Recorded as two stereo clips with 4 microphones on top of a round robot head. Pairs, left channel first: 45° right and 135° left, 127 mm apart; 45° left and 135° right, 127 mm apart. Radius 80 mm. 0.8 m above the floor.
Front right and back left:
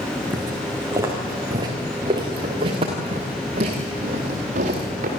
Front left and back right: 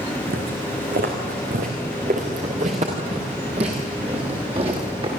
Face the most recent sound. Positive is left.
turn(degrees=170)